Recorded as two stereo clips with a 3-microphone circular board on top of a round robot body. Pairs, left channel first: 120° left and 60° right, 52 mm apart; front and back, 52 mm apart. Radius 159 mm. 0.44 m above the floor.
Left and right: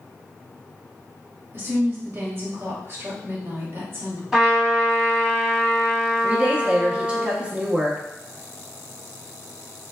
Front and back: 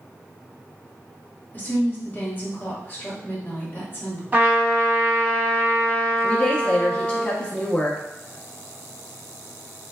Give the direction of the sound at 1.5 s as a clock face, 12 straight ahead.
1 o'clock.